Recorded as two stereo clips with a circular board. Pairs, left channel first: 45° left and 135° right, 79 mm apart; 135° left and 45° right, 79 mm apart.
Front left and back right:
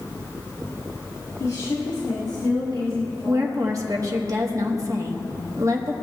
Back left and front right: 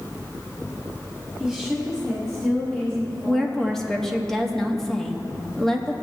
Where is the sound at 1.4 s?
40° left, 1.5 m; by 4.2 s 85° left, 5 m.